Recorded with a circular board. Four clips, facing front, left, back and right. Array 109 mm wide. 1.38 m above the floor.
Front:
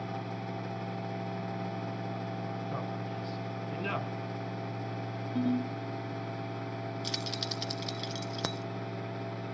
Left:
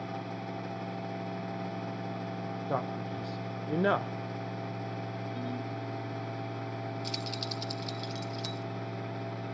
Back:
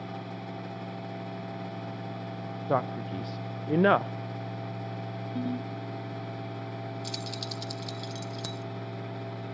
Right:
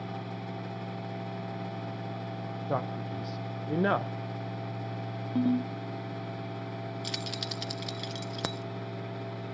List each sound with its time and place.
2.7 s a man speaking: 175° right, 0.9 m
5.3 s a ringtone: 85° right, 1.6 m
7.0 s keys jangling: 55° right, 0.5 m